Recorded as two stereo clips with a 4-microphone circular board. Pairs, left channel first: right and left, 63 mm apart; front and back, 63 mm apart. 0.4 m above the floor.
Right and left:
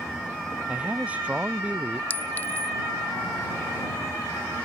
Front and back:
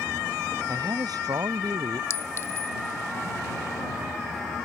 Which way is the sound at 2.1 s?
35° right.